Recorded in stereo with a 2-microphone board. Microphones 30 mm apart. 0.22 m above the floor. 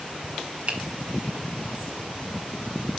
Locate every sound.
0.7 s a finger snap: 55° right (ahead or behind), 2 m